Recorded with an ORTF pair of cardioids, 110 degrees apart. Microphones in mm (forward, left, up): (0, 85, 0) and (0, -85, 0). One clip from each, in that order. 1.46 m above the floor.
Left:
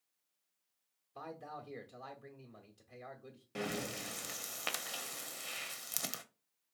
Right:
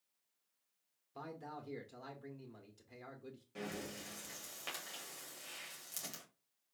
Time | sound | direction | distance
1.1 | a man speaking | 20° right | 0.9 m
3.5 | breathing | 50° left | 0.6 m